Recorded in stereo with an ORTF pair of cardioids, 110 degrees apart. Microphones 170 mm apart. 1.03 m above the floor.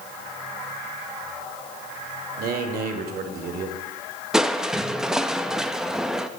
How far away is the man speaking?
About 2.5 m.